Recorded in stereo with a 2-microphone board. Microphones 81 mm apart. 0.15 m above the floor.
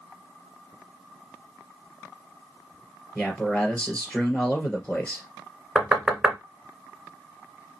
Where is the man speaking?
15° left (ahead or behind), 2.5 m.